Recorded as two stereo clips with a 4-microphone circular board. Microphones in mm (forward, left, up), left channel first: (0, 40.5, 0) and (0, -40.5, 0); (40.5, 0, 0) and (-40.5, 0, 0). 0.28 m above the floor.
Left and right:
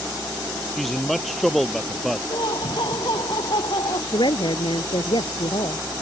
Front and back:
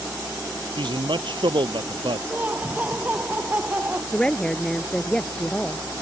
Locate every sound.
0.8 s a man speaking: straight behind
2.3 s laughter: 115° left
4.1 s a woman speaking: 80° left